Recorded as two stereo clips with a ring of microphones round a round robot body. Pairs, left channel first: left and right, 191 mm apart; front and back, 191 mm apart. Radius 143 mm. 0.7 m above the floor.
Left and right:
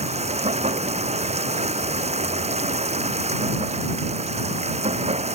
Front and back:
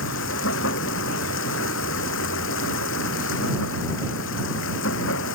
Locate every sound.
0.0 s running water: 35° right